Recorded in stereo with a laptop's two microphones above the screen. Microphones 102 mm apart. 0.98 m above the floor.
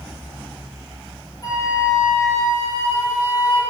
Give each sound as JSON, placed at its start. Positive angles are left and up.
{"t": 1.4, "sound": "a flute", "side_deg": 35, "distance_m": 3.0}